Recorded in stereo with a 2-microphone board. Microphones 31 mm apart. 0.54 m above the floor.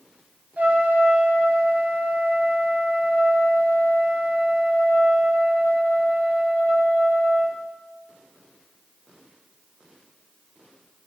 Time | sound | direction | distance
0.6 | a trumpet | 60° right (ahead or behind) | 0.6 m